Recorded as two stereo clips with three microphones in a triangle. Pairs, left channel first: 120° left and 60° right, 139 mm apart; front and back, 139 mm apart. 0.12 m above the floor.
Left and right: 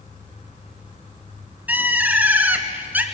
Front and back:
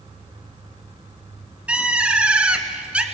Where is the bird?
115° right, 1.7 m.